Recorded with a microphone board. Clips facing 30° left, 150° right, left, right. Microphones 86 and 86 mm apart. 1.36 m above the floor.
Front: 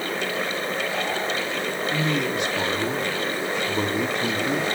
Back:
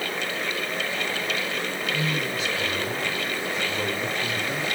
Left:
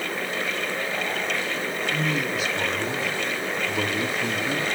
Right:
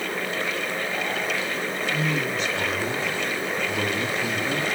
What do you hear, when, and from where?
1.9 s a man speaking: 5° left, 2.5 m